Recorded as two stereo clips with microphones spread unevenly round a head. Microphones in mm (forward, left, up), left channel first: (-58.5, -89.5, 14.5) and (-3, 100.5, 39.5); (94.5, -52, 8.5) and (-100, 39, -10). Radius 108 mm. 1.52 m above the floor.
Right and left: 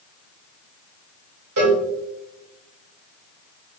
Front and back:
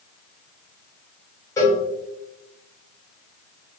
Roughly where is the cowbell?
Ahead left.